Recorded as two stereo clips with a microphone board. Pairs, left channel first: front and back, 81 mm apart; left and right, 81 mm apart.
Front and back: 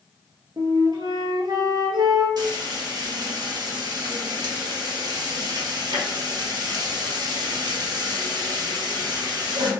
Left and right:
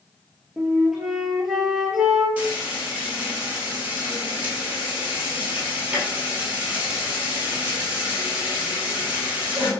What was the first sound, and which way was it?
A flute, 175° right.